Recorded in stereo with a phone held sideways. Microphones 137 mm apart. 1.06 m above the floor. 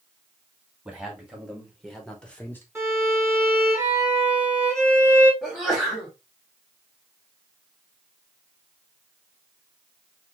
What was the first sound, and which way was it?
A man speaking, 10° right (ahead or behind).